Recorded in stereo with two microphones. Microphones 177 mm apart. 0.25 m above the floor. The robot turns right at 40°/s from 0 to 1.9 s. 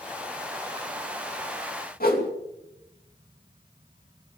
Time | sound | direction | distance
2.0 | a whoosh | 60° left (ahead or behind) | 2.5 m